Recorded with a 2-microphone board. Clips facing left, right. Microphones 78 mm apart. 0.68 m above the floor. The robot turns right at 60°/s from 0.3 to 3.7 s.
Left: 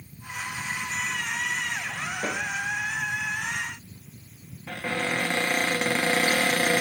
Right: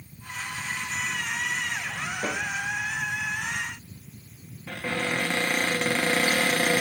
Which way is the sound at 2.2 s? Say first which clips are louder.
Even; 30° right (ahead or behind).